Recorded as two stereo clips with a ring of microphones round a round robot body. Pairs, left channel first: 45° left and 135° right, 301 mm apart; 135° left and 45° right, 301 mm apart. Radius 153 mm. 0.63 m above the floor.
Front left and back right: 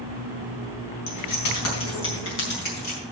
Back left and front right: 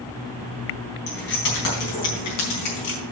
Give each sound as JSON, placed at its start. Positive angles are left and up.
{"t": 1.1, "sound": "keys jangling", "azimuth_deg": 75, "distance_m": 4.0}